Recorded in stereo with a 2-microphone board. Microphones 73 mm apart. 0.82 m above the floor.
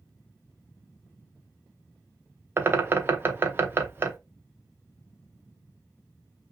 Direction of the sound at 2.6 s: 30° right (ahead or behind).